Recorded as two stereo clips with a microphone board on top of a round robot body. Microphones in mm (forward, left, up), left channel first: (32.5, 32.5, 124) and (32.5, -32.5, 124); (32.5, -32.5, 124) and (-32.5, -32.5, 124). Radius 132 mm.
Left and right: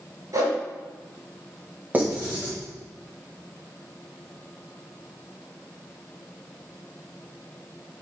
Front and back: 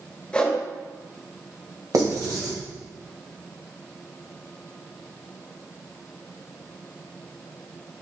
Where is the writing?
150° right, 2.0 m.